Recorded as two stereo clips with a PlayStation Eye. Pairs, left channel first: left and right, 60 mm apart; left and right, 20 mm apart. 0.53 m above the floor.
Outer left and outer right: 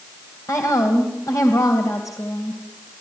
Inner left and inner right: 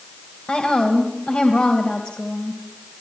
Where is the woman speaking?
60° left (ahead or behind), 2.5 m.